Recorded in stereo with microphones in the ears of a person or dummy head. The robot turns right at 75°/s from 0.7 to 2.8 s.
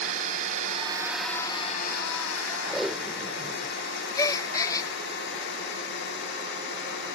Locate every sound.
0.0 s a drone: 35° right (ahead or behind); by 7.2 s 50° left (ahead or behind)
2.6 s tape being pulled: 5° right (ahead or behind); by 3.8 s 5° left (ahead or behind)
4.2 s a gasp: 25° left (ahead or behind)